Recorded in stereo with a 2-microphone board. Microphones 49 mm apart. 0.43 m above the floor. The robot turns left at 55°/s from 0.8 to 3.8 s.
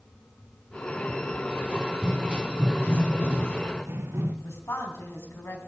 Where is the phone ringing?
No phone ringing in this recording.